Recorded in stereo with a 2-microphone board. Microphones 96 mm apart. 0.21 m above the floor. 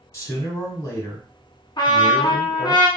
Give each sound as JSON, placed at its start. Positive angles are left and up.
{"t": 0.1, "sound": "a man speaking", "side_deg": 35, "distance_m": 1.1}
{"t": 1.8, "sound": "a trumpet", "side_deg": 55, "distance_m": 0.9}